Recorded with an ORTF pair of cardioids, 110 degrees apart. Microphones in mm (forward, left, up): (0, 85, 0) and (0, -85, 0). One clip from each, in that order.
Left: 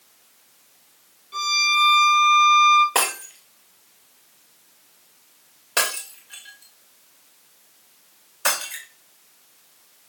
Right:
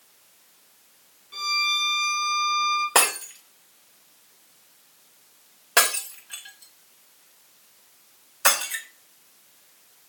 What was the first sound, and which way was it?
A violin, 5° left.